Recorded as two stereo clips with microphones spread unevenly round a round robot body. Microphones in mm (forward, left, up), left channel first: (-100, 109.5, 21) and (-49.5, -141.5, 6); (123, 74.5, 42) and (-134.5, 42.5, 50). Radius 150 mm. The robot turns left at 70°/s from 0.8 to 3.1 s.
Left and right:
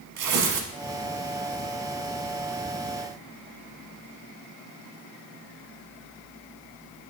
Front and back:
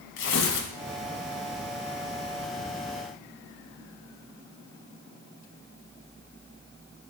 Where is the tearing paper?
45° right, 0.9 m.